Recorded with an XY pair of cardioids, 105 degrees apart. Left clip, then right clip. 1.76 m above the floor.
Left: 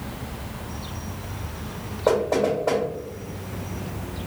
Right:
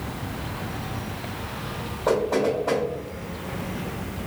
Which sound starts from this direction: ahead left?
Knocking, at 2.1 s.